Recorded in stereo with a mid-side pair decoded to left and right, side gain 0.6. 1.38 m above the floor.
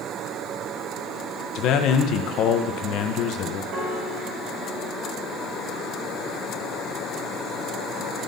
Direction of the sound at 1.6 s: 65° left.